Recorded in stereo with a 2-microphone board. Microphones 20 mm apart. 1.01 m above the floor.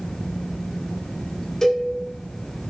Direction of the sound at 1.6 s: 30° left (ahead or behind).